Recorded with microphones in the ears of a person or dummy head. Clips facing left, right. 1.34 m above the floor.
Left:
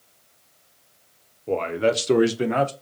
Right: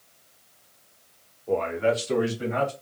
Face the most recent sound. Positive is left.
turn(degrees=90)